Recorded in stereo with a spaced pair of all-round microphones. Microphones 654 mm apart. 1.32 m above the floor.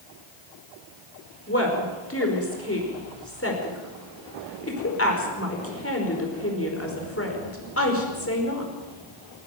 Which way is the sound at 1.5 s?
20° left (ahead or behind).